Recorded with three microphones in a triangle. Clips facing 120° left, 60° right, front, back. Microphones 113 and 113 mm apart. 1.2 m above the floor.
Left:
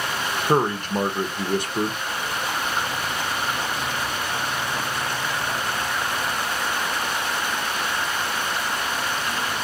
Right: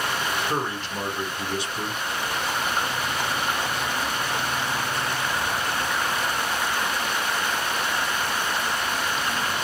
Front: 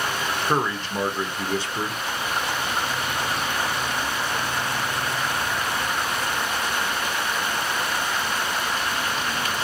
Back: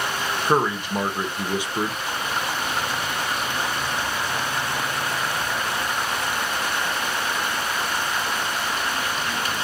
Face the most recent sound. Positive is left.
turn(degrees=110)